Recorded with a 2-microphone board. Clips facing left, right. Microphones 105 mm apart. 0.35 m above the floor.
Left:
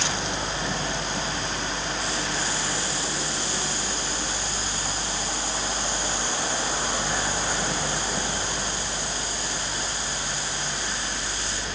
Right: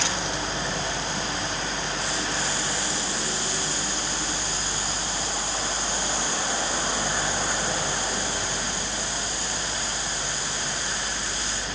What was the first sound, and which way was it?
Only background noise.